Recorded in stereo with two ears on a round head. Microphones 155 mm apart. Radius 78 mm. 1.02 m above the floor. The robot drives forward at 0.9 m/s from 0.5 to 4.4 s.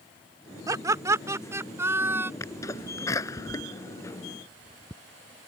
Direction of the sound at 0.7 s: 20° right (ahead or behind).